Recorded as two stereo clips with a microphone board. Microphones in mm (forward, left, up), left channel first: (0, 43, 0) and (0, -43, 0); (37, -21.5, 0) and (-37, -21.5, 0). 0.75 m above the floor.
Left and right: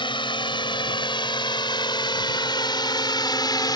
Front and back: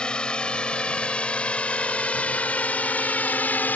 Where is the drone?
75° left; by 3.8 s 65° left.